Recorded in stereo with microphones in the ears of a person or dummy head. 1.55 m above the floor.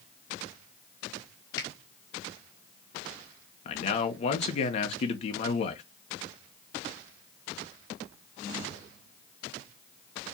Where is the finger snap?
25° left (ahead or behind), 2 m.